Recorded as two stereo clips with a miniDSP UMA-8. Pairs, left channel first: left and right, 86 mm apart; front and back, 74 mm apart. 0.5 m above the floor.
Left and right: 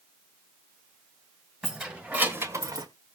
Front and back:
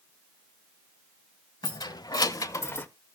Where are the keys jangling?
10° right, 2 m; by 2.9 s 65° right, 1.0 m.